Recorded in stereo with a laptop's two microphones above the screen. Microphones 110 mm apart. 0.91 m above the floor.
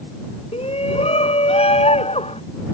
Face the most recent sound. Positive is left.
turn(degrees=80)